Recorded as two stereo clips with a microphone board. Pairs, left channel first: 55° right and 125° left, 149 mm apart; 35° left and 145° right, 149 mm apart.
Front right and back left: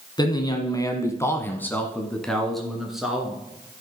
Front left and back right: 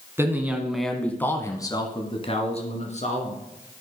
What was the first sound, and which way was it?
A man speaking, 85° right.